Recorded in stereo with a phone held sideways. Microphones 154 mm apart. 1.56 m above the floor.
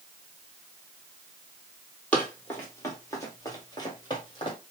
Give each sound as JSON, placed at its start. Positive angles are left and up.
{"t": 2.1, "sound": "running footsteps", "side_deg": 10, "distance_m": 1.9}